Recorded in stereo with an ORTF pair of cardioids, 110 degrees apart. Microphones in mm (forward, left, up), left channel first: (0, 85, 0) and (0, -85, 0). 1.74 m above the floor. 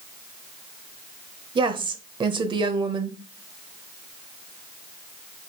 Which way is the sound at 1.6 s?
30° right.